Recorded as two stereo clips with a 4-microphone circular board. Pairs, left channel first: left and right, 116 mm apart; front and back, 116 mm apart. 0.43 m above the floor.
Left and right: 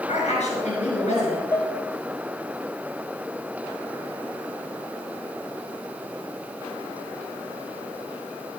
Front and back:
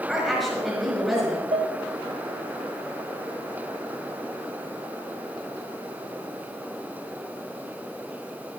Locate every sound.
0.1 s a woman speaking: 90° left, 5 m
1.5 s dishes clattering: 155° left, 1.4 m